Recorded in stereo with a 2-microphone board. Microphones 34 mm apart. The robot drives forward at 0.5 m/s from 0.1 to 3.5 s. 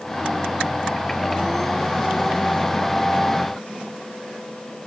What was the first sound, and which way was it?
Only background noise.